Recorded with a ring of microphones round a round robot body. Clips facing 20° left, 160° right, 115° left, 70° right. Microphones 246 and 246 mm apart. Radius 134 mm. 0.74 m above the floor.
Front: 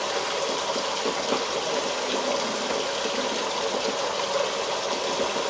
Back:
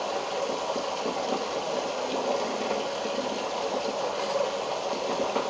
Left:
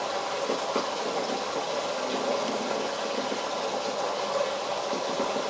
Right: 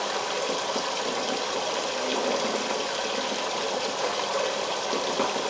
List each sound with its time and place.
0.0 s running water: 35° right, 1.2 m